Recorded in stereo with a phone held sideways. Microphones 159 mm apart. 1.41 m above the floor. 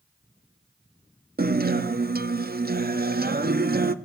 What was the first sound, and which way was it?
A guitar, 75° right (ahead or behind).